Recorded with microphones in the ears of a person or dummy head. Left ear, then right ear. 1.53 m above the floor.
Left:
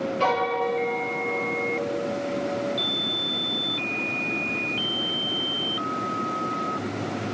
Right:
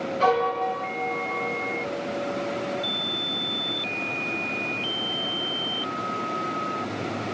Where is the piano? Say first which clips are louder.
Right 2 dB; 10° right (ahead or behind), 2.5 m.